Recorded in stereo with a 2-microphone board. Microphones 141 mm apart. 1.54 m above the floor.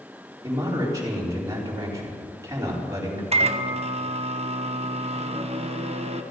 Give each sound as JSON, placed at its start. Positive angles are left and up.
{"t": 0.4, "sound": "a man speaking", "side_deg": -25, "distance_m": 4.5}
{"t": 3.3, "sound": "a microwave", "side_deg": -45, "distance_m": 1.1}